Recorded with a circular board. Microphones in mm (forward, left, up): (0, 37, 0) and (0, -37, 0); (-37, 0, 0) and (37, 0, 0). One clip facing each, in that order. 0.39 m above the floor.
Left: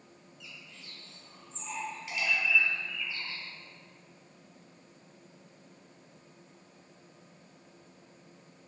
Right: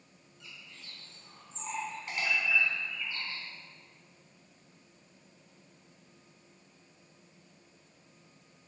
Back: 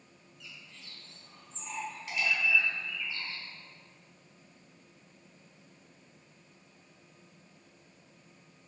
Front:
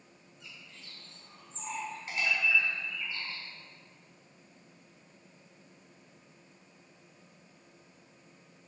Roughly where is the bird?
Ahead right.